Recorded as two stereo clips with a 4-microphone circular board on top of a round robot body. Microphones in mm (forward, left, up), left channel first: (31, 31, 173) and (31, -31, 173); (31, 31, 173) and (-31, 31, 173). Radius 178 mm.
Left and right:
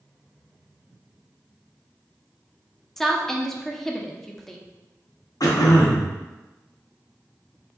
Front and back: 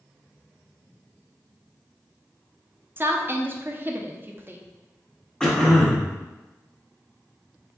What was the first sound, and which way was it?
A woman speaking, 170° left.